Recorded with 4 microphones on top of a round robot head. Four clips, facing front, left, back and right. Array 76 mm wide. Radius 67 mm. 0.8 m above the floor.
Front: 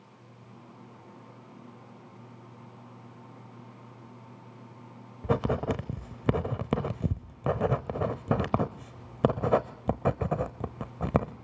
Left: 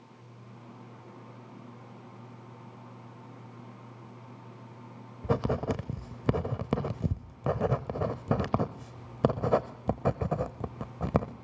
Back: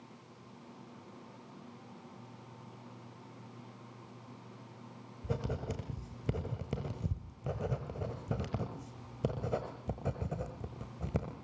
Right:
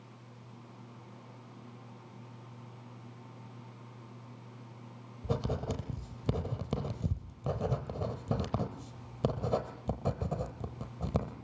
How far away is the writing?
About 0.8 m.